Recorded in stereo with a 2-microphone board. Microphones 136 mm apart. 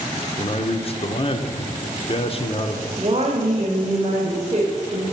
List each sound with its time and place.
0.4 s a man speaking: 40° left (ahead or behind), 0.9 m
3.0 s a woman speaking: 45° right (ahead or behind), 1.6 m